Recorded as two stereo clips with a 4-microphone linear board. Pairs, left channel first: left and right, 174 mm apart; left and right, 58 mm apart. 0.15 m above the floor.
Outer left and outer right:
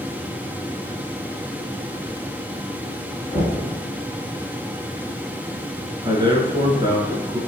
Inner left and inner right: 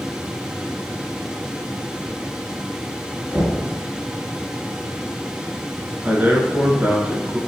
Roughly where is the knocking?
Right.